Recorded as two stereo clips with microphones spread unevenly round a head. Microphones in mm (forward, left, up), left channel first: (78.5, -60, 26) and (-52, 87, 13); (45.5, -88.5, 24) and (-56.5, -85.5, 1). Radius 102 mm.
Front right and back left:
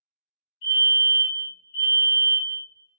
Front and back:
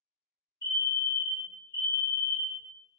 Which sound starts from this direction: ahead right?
A fire alarm, at 0.6 s.